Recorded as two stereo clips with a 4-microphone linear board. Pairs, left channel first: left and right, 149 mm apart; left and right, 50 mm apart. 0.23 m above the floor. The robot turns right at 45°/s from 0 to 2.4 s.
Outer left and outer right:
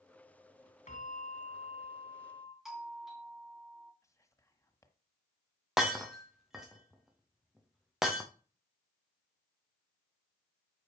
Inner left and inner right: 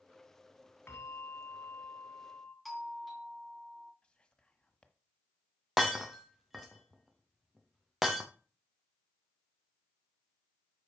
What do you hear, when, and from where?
0.9 s a bell: 70° left, 1.7 m; by 2.5 s 140° left, 1.7 m
2.6 s a doorbell: centre (ahead or behind), 2 m
4.0 s whispering: 20° left (ahead or behind), 1.4 m
5.8 s breaking glass: centre (ahead or behind), 1.8 m